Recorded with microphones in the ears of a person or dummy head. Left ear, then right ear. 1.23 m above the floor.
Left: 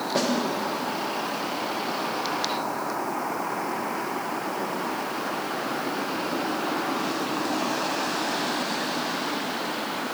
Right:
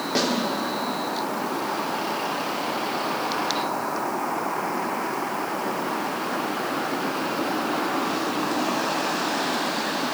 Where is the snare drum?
25° right (ahead or behind), 3.5 m.